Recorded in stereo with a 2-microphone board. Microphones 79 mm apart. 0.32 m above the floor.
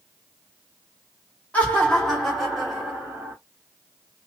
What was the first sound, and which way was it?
Laughter, 20° left (ahead or behind).